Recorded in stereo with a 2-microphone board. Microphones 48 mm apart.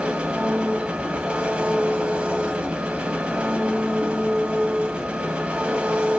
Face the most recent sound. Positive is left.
turn(degrees=-25)  # may be behind; listen again after turning